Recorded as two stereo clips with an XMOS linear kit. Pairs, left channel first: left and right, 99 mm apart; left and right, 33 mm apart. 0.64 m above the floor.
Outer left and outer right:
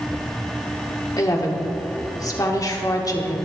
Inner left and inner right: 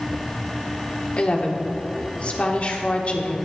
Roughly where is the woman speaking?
Left.